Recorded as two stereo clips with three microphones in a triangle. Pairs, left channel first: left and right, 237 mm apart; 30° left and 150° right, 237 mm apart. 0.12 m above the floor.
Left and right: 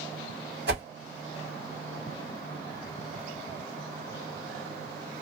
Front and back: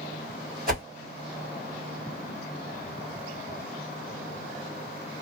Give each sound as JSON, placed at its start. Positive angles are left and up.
{"t": 0.7, "sound": "a whoosh", "azimuth_deg": -105, "distance_m": 0.9}